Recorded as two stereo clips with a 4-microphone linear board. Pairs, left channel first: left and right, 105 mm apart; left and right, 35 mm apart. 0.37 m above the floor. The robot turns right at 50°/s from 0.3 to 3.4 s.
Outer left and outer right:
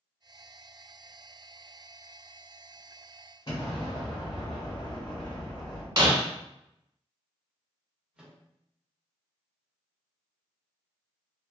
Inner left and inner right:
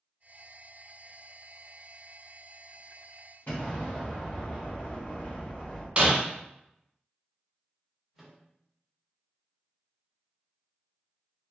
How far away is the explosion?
About 1.3 m.